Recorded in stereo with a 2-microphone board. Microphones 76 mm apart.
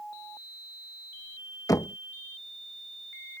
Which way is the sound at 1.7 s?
50° left (ahead or behind).